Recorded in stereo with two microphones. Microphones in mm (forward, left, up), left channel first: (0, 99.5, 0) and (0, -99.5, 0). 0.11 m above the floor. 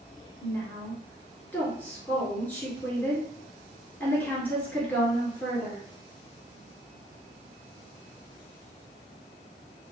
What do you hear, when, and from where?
0.4 s a woman speaking: 10° left (ahead or behind), 1.6 m